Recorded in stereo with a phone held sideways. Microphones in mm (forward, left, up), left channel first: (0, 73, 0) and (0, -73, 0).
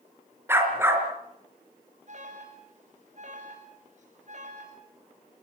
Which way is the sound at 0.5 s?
15° right (ahead or behind).